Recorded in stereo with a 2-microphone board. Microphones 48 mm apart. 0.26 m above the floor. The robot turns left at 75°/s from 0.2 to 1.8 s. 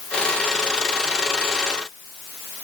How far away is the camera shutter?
No camera shutter in this recording.